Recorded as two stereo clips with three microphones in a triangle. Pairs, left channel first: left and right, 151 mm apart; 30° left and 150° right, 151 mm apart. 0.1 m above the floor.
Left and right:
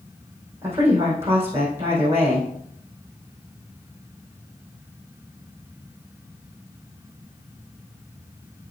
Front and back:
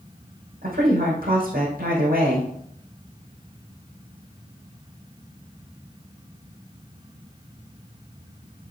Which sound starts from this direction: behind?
A woman speaking, at 0.6 s.